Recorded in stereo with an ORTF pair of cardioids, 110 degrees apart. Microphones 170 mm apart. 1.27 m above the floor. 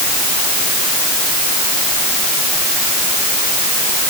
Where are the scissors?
I don't hear scissors.